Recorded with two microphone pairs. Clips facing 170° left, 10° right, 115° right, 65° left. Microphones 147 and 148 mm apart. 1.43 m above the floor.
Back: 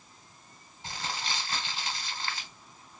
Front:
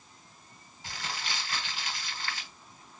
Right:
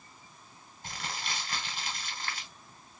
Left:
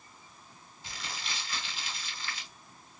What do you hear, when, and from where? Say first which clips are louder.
0.8 s crumpling: back 2 dB, right 3 dB; 135° right, 2.0 m